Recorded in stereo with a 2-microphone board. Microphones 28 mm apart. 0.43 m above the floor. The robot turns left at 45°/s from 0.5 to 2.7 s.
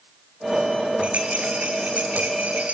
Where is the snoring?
No snoring in this recording.